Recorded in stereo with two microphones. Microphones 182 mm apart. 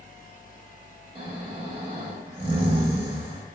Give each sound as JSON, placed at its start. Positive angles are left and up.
{"t": 1.1, "sound": "snoring", "side_deg": -30, "distance_m": 0.7}